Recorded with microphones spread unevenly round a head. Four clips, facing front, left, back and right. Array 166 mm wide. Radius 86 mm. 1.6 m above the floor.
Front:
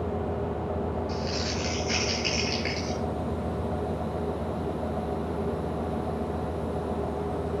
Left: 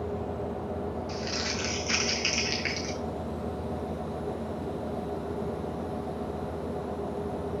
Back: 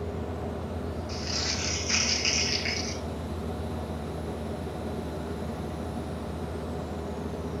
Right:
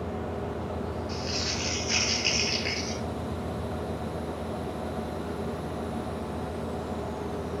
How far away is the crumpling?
About 2 m.